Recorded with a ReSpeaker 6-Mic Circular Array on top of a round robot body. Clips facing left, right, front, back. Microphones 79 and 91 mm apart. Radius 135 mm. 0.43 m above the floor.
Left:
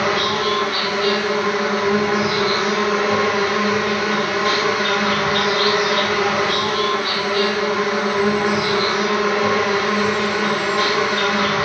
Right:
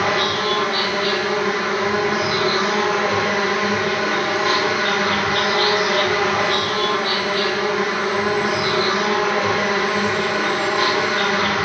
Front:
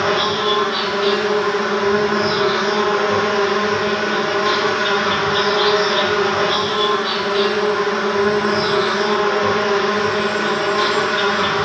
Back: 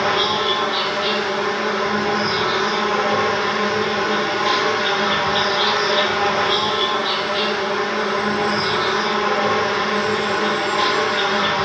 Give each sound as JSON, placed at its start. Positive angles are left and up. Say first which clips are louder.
{"t": 0.0, "sound": "an insect", "louder": "left 1 dB, front 1 dB", "azimuth_deg": -15, "distance_m": 2.5}